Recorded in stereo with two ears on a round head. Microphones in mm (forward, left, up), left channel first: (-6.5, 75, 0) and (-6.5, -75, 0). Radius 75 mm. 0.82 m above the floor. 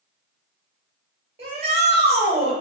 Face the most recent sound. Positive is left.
turn(degrees=-35)  # may be behind; listen again after turning